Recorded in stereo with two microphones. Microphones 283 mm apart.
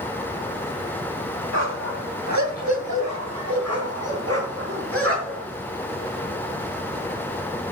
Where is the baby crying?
No baby crying in this recording.